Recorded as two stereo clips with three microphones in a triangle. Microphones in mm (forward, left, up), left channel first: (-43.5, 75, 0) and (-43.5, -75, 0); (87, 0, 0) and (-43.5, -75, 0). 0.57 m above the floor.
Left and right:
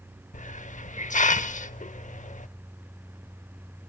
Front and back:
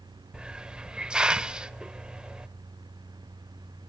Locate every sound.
0.3 s a hiss: 125° left, 0.7 m